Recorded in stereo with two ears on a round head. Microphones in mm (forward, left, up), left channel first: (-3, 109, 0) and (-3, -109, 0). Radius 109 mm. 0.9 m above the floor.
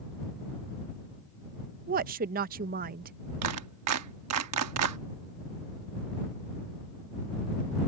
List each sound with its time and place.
1.9 s a woman speaking: 35° right (ahead or behind)
3.4 s a clap: 70° right (ahead or behind)